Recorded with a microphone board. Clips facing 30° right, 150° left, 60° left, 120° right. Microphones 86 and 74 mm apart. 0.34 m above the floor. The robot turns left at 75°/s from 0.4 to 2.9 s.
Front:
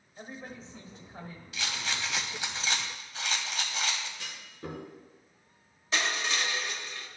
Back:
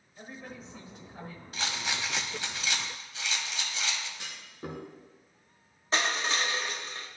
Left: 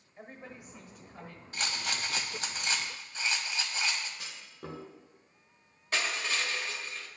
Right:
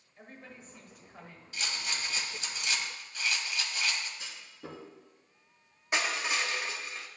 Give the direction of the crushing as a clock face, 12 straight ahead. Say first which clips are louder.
Back 2 dB, right 2 dB; 6 o'clock.